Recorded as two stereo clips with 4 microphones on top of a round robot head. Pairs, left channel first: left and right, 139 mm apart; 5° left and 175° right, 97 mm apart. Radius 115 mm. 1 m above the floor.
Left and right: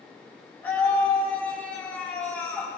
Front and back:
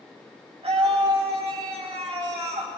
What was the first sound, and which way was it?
A scream, 170° left.